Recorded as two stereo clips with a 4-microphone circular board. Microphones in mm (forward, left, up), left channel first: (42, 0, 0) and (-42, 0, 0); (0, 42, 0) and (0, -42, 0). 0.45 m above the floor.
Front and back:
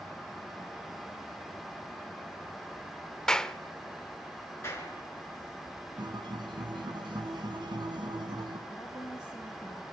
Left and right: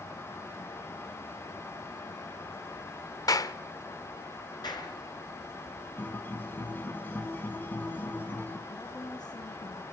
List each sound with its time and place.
3.3 s a clap: 80° left, 0.7 m
4.6 s a clap: 60° left, 5 m
6.0 s a guitar: 155° left, 2.5 m
8.7 s a woman speaking: 60° left, 5 m